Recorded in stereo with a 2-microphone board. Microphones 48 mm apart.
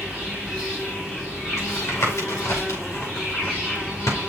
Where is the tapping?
85° left, 5 m.